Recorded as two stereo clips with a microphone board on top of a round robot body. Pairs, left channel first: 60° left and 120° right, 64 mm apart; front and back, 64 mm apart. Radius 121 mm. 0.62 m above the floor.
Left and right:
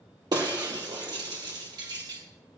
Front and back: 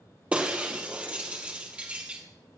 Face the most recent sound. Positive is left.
turn(degrees=-110)